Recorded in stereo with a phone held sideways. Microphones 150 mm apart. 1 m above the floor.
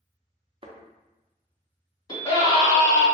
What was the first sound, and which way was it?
A thud, 35° right (ahead or behind).